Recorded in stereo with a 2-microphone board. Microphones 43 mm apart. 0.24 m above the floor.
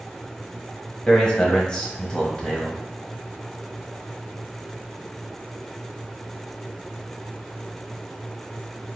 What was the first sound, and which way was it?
A man speaking, 15° left (ahead or behind).